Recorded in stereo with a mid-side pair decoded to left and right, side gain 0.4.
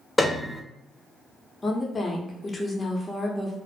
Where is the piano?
15° left, 0.5 m.